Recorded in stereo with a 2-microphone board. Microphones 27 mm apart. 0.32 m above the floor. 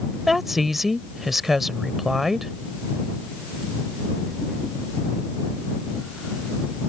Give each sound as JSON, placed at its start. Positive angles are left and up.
{"t": 0.3, "sound": "a woman speaking", "side_deg": -10}